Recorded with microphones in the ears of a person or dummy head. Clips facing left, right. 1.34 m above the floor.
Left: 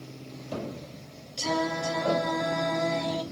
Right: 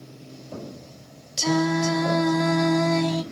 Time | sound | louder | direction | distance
1.4 | singing | right 7 dB | 65° right (ahead or behind) | 0.9 m